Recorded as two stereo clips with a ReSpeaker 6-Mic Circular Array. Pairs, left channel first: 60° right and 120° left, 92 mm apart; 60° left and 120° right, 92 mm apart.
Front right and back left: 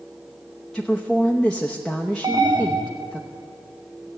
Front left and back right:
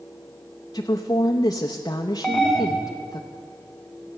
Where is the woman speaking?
25° left, 0.7 m.